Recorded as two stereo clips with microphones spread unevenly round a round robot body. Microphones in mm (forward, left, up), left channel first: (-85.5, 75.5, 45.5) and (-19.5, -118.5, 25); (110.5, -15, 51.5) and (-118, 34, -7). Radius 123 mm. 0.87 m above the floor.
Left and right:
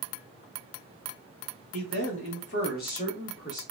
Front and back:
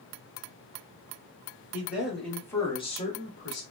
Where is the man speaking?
90° left, 1.7 m; by 3.6 s 30° left, 1.3 m.